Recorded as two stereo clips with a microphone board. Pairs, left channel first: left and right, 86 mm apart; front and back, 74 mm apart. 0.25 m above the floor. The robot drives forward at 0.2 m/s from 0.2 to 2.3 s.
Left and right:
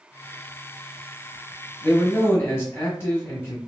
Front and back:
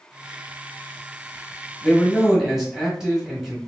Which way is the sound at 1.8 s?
95° left.